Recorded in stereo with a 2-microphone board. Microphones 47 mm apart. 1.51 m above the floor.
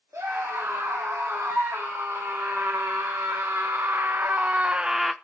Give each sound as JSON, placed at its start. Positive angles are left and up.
{"t": 0.1, "sound": "a scream", "side_deg": -75, "distance_m": 2.5}